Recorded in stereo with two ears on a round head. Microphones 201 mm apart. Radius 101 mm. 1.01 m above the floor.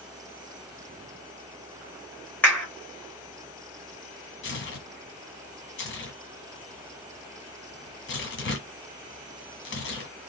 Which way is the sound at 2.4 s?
10° left (ahead or behind).